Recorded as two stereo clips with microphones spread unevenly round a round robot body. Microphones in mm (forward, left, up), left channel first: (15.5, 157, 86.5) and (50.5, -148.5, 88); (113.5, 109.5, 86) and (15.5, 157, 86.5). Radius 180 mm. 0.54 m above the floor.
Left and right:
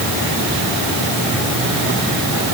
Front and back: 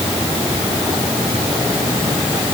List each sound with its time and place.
Only background noise.